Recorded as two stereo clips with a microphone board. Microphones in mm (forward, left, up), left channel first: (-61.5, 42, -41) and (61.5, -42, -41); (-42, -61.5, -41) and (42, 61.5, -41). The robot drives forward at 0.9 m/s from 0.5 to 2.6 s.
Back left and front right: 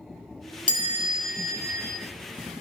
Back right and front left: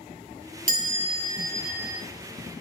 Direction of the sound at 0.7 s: 85° left.